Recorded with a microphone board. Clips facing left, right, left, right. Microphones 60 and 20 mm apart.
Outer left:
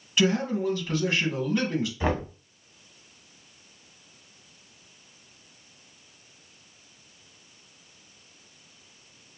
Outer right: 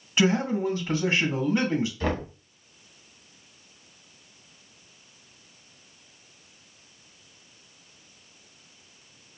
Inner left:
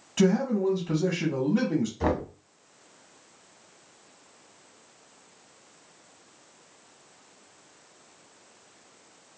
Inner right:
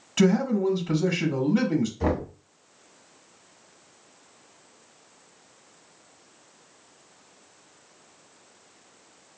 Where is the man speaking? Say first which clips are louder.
Outer right 1 dB, inner right 2 dB; 25° right (ahead or behind), 1.1 m.